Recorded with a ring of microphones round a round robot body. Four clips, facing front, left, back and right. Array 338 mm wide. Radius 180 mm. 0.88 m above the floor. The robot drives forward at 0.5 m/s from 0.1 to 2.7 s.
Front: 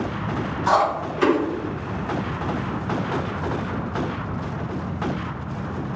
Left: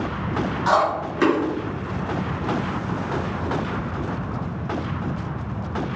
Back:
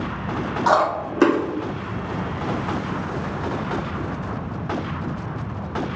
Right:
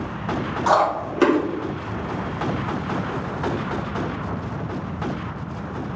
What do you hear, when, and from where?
0.7 s chewing: 155° right, 1.5 m; by 1.4 s 160° right, 1.9 m